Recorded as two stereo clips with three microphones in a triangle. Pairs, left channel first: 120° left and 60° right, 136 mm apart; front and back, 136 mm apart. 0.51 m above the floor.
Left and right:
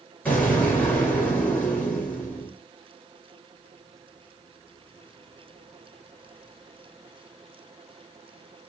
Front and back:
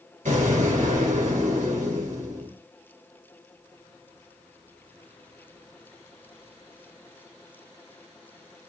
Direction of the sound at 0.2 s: 160° right.